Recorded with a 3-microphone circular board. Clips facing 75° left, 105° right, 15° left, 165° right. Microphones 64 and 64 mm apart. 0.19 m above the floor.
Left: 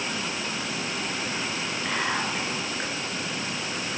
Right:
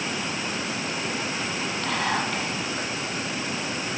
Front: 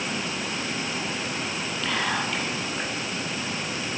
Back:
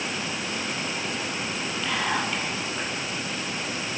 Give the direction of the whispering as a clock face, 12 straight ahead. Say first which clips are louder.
Right 2 dB, even; 3 o'clock.